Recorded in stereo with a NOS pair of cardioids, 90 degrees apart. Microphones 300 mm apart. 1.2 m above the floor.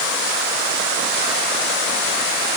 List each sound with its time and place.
Only background noise.